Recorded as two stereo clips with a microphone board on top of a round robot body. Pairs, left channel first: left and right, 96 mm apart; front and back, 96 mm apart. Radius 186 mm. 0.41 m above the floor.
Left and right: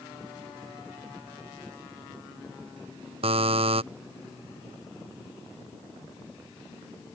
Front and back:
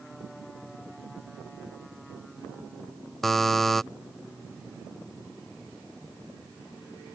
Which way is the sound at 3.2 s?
90° right.